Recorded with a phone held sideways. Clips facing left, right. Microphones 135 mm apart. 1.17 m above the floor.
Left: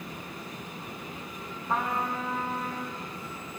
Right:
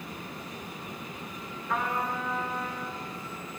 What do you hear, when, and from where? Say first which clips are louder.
1.7 s a trumpet: left 1 dB; 35° left (ahead or behind), 3 m